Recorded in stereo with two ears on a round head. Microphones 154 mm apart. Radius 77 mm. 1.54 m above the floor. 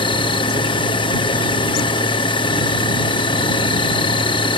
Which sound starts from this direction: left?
An insect, at 0.0 s.